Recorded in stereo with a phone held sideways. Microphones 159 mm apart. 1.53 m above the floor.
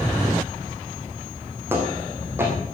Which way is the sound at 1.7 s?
15° right (ahead or behind).